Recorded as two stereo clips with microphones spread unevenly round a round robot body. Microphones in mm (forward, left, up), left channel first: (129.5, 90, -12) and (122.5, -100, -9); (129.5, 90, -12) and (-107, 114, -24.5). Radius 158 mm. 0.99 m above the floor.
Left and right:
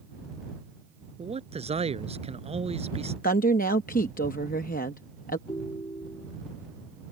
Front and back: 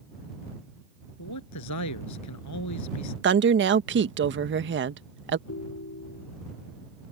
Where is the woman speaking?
145° left.